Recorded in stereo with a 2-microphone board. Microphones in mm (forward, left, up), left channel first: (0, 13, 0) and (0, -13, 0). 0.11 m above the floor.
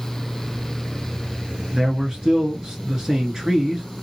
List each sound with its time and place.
1.7 s a man speaking: 25° right (ahead or behind), 1.3 m